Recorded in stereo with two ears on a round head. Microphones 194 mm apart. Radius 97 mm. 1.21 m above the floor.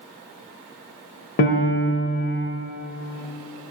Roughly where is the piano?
Left.